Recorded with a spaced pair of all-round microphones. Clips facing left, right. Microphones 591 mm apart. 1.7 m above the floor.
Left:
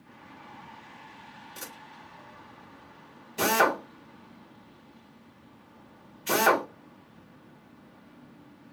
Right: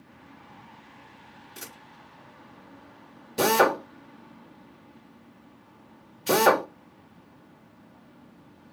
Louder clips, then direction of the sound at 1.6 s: Even; 5° right (ahead or behind).